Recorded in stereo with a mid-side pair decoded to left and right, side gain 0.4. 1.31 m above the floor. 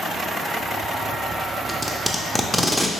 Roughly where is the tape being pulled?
Ahead.